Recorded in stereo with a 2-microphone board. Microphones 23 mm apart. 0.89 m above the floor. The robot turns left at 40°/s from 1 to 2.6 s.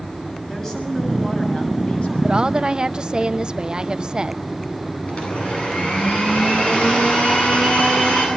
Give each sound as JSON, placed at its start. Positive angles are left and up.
{"t": 0.5, "sound": "a woman speaking", "azimuth_deg": 155, "distance_m": 6.5}
{"t": 2.2, "sound": "a woman speaking", "side_deg": -45, "distance_m": 0.6}
{"t": 5.1, "sound": "a blender", "side_deg": 50, "distance_m": 9.5}